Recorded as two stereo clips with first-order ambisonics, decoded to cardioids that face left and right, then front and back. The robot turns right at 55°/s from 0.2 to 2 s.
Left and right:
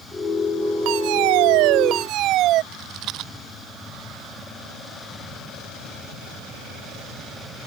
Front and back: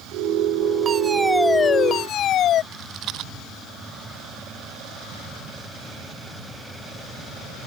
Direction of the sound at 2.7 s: 135° right.